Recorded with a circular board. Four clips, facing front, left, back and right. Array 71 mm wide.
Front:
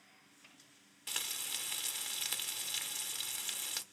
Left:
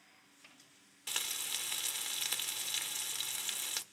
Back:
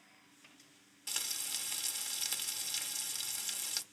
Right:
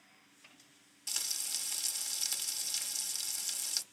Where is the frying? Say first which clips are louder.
Left 5 dB, front 1 dB; 70° left, 0.8 m.